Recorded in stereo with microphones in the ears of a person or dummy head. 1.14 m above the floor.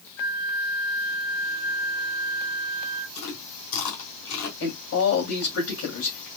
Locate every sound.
0.2 s a flute: 85° left, 3 m
3.1 s chewing: 80° left, 3.5 m
4.6 s a man speaking: 80° left, 4 m